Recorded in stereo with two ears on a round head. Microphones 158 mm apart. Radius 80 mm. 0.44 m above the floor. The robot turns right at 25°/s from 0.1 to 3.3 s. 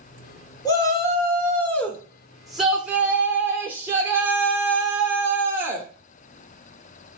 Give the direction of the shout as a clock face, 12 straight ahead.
7 o'clock.